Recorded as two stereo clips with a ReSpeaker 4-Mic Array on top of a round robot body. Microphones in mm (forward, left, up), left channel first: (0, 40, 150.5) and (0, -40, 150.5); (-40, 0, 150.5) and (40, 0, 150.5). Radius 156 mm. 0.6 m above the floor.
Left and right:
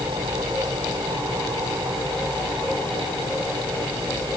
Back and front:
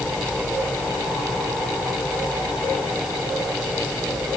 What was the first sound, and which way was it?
Only background noise.